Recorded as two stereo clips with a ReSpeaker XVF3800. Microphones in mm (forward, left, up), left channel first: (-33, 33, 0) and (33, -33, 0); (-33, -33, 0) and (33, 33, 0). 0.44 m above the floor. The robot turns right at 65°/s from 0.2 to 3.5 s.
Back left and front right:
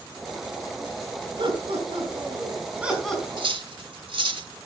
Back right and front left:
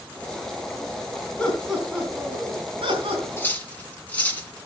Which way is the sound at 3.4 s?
70° right.